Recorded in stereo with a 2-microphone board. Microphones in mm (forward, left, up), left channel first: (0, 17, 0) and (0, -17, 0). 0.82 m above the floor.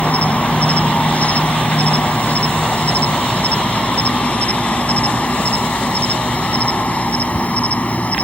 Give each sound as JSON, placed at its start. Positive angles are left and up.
{"t": 0.0, "sound": "an insect", "side_deg": 50}